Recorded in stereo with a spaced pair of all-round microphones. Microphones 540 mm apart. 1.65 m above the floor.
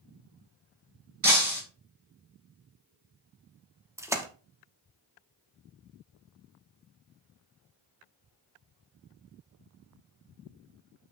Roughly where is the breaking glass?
Right.